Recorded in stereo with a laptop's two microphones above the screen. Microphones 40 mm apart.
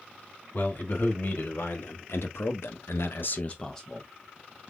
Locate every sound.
0.5 s a man speaking: 55° left (ahead or behind), 2 m; by 4.1 s centre (ahead or behind), 0.7 m